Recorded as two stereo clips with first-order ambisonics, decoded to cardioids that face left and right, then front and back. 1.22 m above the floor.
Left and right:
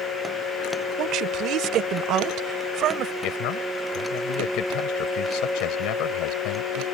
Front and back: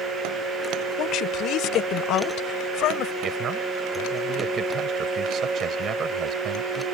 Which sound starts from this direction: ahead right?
A woman speaking, at 1.0 s.